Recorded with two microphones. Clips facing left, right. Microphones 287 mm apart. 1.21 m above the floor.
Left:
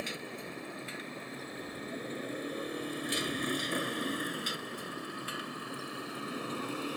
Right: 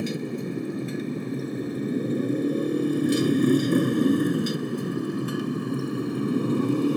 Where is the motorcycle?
55° right (ahead or behind).